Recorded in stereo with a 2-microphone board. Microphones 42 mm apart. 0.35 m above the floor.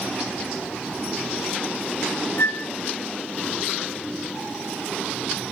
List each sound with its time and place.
2.4 s a flute: 75° left (ahead or behind), 0.6 m